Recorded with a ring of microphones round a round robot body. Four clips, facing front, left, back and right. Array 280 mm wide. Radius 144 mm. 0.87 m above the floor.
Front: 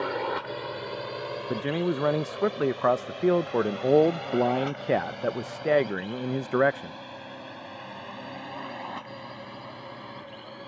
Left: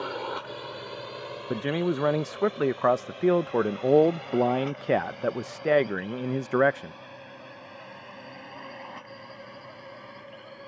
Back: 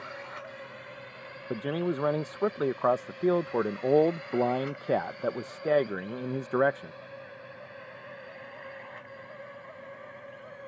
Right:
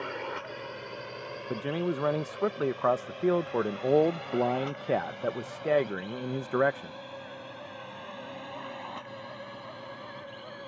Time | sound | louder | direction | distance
0.0 | a drone | left 3 dB, front 12 dB | 10° left | ?
1.5 | a man speaking | left 4 dB, front 2 dB | 55° left | ?